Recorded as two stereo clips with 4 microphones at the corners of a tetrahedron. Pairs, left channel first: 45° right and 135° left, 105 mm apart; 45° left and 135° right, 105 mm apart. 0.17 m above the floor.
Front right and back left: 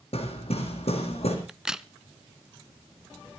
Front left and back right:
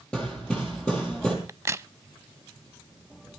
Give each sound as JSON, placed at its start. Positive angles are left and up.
{"t": 0.1, "sound": "hammering", "azimuth_deg": -35, "distance_m": 5.0}
{"t": 1.5, "sound": "a crack", "azimuth_deg": -150, "distance_m": 0.5}